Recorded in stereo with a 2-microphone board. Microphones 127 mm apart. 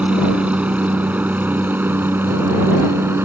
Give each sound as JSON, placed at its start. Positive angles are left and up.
{"t": 0.0, "sound": "a helicopter", "side_deg": -10}